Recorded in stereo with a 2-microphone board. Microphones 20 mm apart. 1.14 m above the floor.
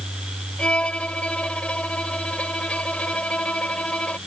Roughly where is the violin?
Left.